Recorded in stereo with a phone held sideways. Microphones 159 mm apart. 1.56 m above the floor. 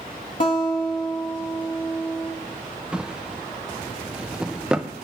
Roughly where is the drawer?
Centre.